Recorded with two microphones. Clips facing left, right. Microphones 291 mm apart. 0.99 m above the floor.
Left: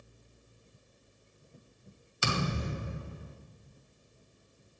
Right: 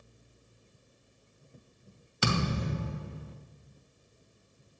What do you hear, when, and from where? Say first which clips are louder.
2.2 s a thud: right 3 dB; 70° right (ahead or behind), 2 m